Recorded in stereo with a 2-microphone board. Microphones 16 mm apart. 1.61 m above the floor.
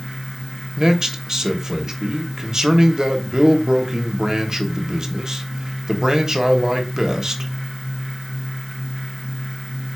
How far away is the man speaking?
About 1.2 m.